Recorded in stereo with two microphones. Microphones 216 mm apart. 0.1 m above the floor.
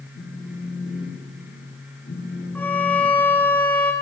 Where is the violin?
10° left (ahead or behind), 1.0 m.